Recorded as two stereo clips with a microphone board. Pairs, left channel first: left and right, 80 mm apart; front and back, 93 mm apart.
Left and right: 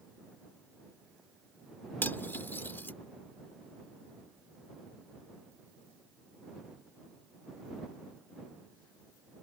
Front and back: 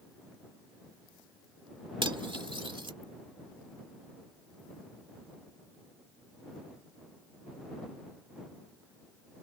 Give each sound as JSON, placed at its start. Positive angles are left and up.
{"t": 2.0, "sound": "cutlery clinking", "azimuth_deg": 155}